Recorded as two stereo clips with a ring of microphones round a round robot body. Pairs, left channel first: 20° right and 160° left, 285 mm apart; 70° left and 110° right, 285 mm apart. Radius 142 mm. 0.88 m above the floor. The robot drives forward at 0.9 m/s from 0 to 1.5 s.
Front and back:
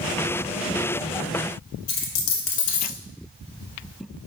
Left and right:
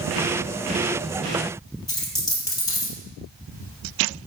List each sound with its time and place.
1.9 s a dropped coin: 5° right, 1.1 m